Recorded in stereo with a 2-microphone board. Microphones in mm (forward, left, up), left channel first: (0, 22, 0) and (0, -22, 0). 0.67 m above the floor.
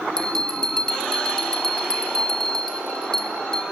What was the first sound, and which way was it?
A bell, 15° left (ahead or behind).